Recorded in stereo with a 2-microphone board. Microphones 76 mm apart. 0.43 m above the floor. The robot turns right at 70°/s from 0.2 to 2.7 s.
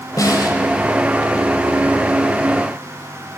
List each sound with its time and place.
0.2 s a snare drum: 50° left (ahead or behind), 1.4 m; by 0.6 s 65° left (ahead or behind), 1.4 m